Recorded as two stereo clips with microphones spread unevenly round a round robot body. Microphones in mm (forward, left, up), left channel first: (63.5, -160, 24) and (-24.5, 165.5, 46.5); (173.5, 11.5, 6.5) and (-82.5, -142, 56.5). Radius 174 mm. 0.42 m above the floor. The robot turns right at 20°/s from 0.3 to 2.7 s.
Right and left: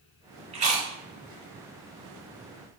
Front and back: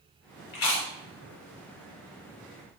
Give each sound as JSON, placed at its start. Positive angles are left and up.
{"t": 0.5, "sound": "chewing", "azimuth_deg": 30, "distance_m": 1.0}